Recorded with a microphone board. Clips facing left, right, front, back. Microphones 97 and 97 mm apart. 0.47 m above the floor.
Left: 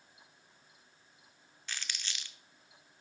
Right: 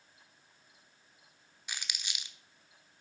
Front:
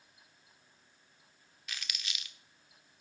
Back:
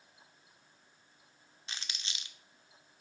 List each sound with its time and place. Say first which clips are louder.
1.7 s crumpling: even, front 1 dB; 155° right, 0.7 m